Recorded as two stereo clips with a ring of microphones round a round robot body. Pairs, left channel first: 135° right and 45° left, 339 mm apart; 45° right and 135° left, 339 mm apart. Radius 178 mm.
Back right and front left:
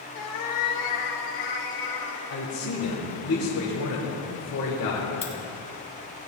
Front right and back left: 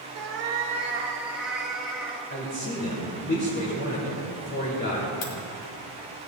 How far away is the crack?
About 3 m.